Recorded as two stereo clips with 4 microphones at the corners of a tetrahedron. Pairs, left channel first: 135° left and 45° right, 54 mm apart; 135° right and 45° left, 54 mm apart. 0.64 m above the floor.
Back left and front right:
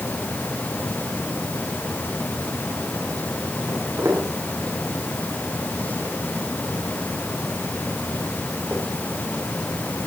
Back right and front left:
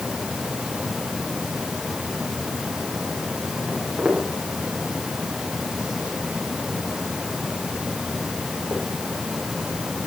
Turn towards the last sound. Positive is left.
turn(degrees=5)